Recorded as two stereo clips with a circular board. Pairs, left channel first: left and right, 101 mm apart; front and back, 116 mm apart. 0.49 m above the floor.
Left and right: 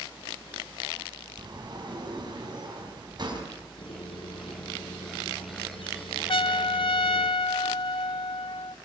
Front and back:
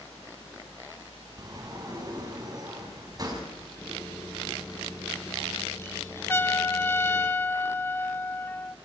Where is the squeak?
70° left, 4 m.